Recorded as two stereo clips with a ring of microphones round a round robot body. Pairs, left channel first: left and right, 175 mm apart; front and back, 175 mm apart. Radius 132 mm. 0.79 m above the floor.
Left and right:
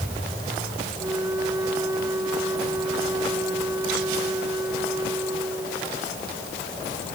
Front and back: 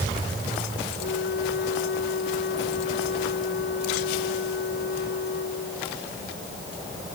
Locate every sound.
1.0 s a flute: 15° right